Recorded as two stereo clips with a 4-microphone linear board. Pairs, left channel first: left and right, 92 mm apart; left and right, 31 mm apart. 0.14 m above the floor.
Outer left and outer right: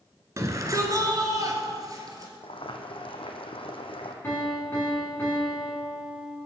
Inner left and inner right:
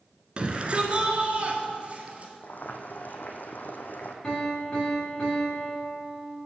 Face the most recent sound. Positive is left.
turn(degrees=20)  # may be behind; listen again after turning